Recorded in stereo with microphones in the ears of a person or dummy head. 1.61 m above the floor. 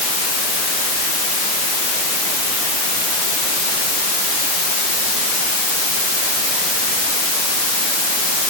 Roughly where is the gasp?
No gasp in this recording.